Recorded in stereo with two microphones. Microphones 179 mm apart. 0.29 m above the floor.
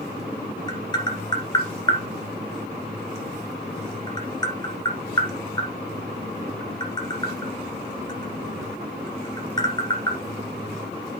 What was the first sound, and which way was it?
Tapping, 25° left (ahead or behind).